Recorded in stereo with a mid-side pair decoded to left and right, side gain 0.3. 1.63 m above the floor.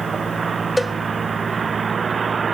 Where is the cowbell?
15° left, 0.7 m.